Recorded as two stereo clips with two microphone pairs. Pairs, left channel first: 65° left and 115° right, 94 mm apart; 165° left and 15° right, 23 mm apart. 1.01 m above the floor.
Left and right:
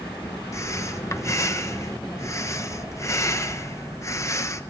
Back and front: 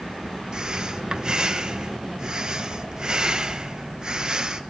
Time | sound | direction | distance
0.5 | breathing | 25° left | 0.8 m